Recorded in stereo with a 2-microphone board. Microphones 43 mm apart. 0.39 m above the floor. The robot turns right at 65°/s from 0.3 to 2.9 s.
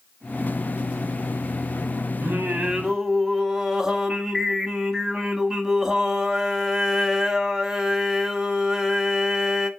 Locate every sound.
2.2 s singing: 60° right, 0.6 m; by 9.7 s 15° right, 0.6 m